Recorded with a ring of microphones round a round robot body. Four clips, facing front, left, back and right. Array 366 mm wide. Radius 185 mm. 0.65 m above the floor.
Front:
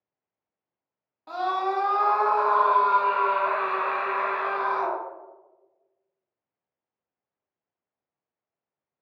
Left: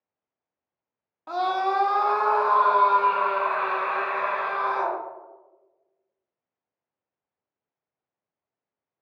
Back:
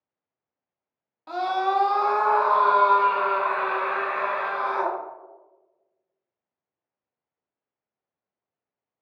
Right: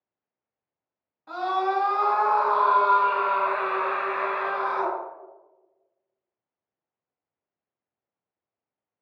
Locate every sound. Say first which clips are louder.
1.3 s a scream: left 1 dB, back 2 dB; 105° left, 0.6 m; by 5.0 s 165° right, 2 m